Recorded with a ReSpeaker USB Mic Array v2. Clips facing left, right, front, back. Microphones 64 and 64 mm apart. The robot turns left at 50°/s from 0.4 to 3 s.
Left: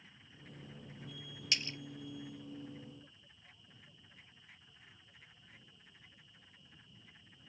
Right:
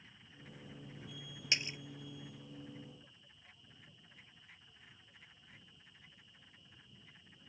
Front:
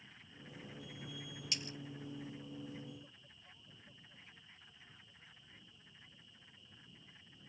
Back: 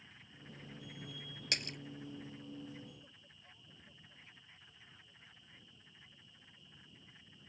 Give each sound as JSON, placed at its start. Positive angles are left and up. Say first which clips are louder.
{"t": 1.5, "sound": "a splash", "louder": "right 1 dB, back 5 dB", "azimuth_deg": -155}